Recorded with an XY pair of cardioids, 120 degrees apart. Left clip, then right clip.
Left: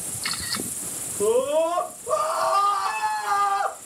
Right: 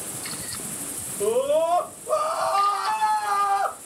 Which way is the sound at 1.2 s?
40° left.